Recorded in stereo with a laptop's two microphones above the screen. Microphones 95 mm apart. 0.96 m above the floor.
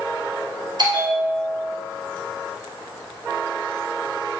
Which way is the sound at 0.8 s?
50° right (ahead or behind).